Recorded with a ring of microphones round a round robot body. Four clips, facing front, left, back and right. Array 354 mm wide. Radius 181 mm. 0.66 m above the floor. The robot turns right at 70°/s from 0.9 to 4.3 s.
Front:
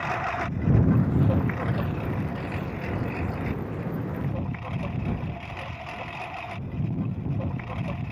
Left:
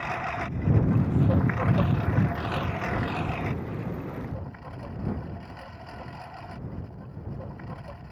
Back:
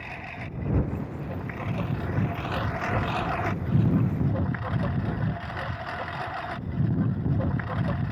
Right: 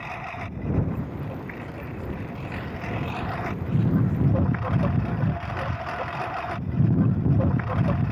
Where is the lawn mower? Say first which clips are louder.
Left 3 dB, front 11 dB; 20° left; by 8.1 s 100° right.